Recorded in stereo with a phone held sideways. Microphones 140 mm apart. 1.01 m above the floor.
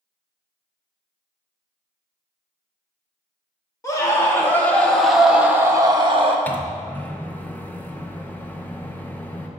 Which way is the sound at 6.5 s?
10° left (ahead or behind).